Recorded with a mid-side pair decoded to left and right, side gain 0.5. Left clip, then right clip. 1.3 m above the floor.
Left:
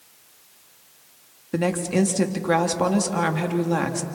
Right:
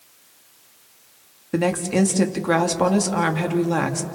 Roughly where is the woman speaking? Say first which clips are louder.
Right 2 dB; ahead.